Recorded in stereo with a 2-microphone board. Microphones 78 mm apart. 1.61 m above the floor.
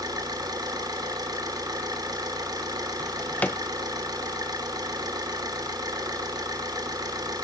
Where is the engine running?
60° right (ahead or behind), 3 m.